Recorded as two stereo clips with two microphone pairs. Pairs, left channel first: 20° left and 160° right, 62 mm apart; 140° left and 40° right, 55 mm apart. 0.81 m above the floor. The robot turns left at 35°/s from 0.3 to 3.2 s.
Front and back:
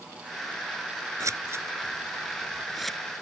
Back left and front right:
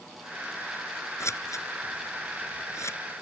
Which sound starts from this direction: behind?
Scissors, at 1.2 s.